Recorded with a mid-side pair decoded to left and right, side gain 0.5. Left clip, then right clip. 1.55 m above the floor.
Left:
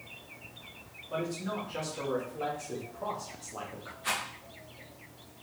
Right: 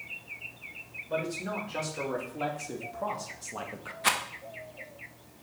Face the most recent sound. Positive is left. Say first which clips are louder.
# right 5 dB
turn(degrees=-70)